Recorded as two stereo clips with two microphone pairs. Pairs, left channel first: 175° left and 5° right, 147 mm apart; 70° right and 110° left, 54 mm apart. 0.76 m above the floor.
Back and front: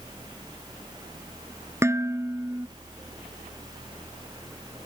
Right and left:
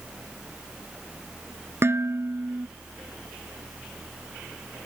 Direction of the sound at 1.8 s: 65° left.